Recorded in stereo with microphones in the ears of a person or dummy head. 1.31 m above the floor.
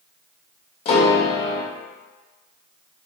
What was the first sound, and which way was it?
A piano, 30° left (ahead or behind).